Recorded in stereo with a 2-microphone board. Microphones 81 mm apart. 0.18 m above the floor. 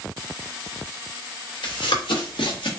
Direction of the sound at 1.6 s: 80° left.